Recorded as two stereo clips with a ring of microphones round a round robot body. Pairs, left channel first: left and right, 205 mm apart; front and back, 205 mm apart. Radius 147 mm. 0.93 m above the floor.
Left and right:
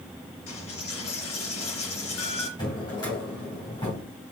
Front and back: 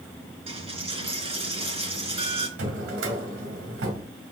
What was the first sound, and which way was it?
A dropped coin, 120° left.